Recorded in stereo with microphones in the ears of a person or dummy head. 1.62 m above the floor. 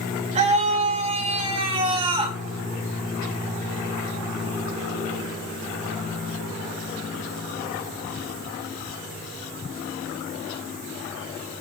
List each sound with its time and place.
0.3 s a scream: 30° right (ahead or behind), 7 m; by 2.4 s 25° right (ahead or behind), 6.5 m